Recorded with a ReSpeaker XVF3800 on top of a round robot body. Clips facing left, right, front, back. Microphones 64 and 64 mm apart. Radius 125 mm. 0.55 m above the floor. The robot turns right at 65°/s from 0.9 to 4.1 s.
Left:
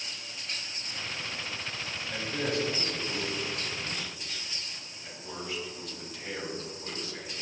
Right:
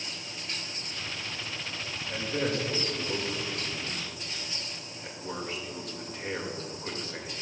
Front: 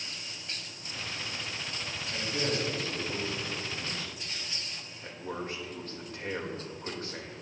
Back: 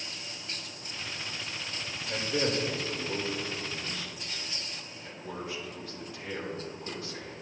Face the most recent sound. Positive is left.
turn(degrees=-40)